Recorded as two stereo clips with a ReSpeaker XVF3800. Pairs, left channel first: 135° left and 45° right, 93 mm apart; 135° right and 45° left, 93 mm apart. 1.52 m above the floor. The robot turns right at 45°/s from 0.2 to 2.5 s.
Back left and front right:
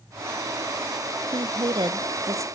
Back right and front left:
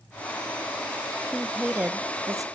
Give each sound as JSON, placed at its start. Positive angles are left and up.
{"t": 1.3, "sound": "a woman speaking", "azimuth_deg": -45, "distance_m": 0.7}